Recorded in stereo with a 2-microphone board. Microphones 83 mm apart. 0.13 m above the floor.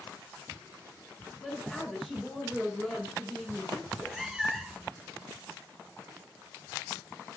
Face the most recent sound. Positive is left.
turn(degrees=0)  # may be behind; listen again after turning